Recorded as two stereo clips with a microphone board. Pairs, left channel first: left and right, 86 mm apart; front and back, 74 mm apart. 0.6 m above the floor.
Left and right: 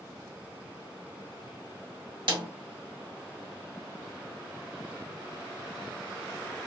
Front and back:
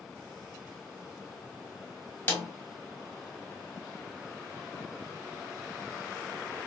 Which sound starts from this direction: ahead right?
A snare drum, at 2.3 s.